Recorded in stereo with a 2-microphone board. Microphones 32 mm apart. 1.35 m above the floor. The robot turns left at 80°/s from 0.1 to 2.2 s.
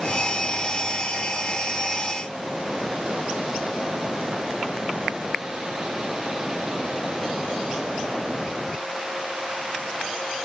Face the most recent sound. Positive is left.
No sound to turn to.